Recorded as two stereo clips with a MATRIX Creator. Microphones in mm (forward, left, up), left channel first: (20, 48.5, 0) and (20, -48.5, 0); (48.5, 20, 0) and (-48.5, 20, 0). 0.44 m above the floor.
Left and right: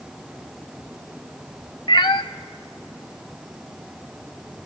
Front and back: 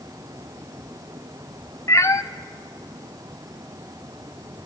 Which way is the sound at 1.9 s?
60° left.